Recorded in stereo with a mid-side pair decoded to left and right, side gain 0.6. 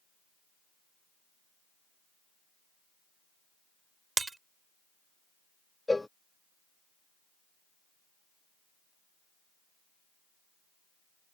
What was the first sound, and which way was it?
Breaking glass, 20° right.